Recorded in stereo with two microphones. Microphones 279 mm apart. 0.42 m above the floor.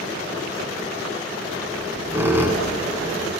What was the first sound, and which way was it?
A squeak, 10° right (ahead or behind).